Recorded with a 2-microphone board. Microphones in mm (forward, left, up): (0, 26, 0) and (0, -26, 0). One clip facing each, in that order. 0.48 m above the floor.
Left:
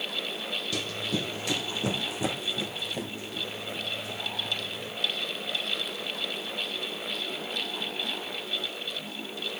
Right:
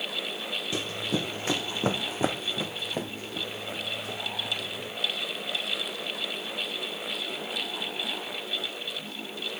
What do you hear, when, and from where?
0.7 s running footsteps: 25° right (ahead or behind), 0.9 m; by 4.9 s 50° right (ahead or behind), 3.5 m